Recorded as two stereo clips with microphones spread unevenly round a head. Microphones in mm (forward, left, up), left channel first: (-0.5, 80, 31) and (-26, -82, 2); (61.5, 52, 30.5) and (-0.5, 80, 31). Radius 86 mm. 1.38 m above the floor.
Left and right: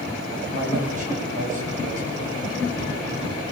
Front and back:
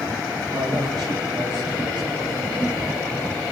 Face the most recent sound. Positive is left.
turn(degrees=-145)